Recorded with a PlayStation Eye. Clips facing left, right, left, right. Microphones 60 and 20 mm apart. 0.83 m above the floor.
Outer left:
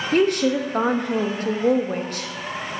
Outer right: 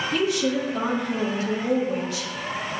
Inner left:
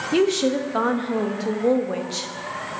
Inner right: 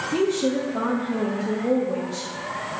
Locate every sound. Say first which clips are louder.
0.1 s a woman speaking: outer left 6 dB, inner left 3 dB; 50° left (ahead or behind), 0.8 m